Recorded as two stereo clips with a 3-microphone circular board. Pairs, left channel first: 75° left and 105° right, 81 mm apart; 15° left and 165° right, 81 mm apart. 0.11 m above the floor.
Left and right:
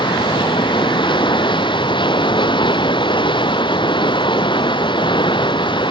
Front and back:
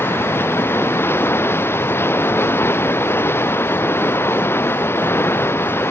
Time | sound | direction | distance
0.0 | running water | 75° left | ?